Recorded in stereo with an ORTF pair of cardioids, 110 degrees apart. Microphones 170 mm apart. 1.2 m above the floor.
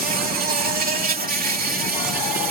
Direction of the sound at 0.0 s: 60° right.